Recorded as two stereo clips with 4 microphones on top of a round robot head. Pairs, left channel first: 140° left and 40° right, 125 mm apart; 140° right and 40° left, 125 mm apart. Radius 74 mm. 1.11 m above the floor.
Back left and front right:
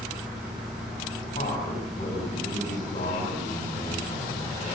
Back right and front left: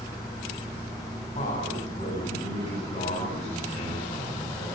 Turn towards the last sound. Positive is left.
turn(degrees=180)